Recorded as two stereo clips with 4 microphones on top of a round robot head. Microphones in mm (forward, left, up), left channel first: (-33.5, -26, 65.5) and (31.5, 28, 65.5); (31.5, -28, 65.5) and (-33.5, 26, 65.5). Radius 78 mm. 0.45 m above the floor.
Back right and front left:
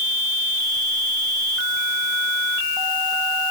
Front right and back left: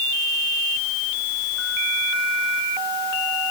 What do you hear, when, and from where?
Only background noise.